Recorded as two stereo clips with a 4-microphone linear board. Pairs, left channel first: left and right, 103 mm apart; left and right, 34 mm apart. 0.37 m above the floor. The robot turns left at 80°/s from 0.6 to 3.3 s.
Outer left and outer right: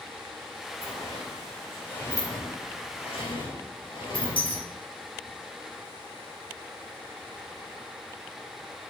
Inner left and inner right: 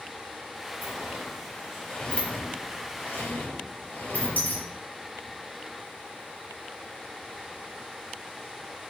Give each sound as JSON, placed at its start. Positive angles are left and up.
{"t": 0.8, "sound": "a sliding door", "side_deg": -70, "distance_m": 4.5}